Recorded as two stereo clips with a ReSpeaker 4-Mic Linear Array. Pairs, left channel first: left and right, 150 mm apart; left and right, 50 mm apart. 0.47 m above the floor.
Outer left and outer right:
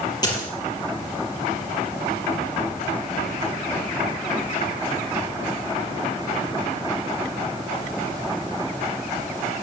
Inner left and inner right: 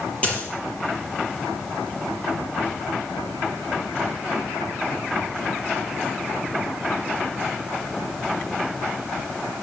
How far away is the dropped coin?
About 5.5 m.